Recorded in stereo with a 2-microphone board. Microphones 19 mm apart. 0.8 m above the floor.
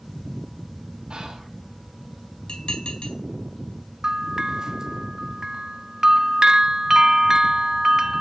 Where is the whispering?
65° right (ahead or behind), 3 m.